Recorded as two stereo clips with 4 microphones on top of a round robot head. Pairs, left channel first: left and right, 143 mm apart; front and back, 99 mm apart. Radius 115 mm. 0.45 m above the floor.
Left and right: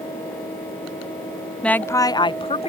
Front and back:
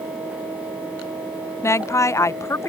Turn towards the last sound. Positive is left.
turn(degrees=60)